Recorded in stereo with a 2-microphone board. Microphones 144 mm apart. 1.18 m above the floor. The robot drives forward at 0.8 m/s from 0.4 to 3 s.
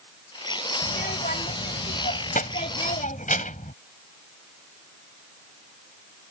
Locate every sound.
0.8 s a child speaking: 80° left; by 3.7 s 60° left (ahead or behind)